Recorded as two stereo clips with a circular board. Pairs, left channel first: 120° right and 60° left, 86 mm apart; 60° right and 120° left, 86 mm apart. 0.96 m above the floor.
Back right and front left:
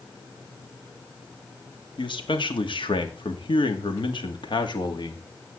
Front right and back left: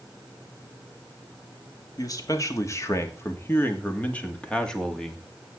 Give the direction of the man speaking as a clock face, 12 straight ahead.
3 o'clock.